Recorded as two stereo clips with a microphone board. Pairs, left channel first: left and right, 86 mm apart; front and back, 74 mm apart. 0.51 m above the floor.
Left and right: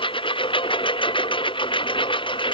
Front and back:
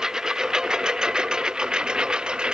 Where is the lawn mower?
100° left; by 2.5 s 105° left.